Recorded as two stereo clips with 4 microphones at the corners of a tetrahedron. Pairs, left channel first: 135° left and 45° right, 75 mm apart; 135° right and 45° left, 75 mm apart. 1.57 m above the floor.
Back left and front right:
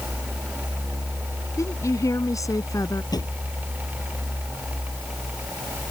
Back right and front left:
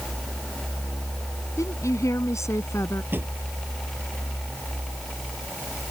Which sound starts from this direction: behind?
A woman speaking, at 1.6 s.